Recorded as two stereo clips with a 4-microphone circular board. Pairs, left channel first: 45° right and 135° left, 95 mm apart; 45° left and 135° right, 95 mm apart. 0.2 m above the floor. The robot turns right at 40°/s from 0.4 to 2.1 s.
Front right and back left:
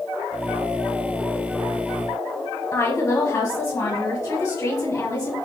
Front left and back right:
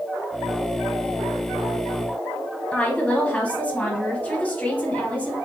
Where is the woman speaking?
15° right, 1.4 m.